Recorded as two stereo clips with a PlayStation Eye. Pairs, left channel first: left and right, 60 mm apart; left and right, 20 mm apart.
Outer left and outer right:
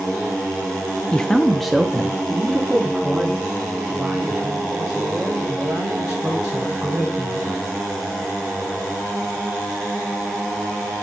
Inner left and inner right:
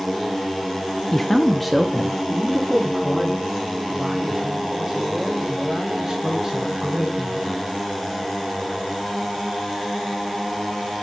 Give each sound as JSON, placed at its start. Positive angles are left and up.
{"t": 1.1, "sound": "a man speaking", "side_deg": 15, "distance_m": 0.5}